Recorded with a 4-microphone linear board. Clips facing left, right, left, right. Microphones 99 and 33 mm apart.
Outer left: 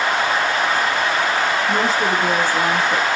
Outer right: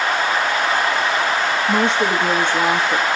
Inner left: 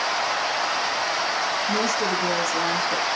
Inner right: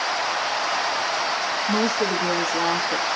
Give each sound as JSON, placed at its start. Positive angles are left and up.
{"t": 1.7, "sound": "a woman speaking", "side_deg": -30, "distance_m": 3.5}